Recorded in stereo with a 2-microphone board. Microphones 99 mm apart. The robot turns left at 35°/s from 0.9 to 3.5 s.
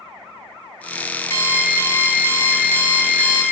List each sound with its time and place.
1.3 s an alarm clock: 25° left (ahead or behind), 0.5 m; by 3.4 s 15° left (ahead or behind), 0.5 m